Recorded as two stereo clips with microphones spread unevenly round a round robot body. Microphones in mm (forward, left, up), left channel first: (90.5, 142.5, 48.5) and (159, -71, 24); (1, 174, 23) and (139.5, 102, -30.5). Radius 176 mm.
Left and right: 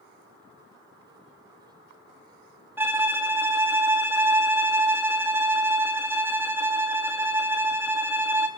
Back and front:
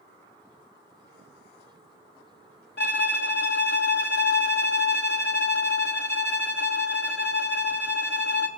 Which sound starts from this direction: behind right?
A violin, at 2.8 s.